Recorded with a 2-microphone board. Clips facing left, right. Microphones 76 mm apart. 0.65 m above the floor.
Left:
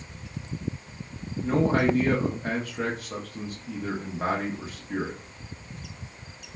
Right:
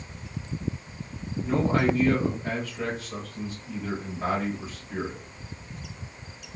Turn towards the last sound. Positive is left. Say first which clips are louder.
# left 1 dB
turn(degrees=50)  # may be behind; listen again after turning